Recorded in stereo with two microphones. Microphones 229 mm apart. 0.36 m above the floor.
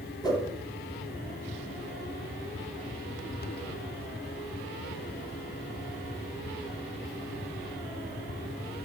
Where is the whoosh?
20° left (ahead or behind), 1.6 m.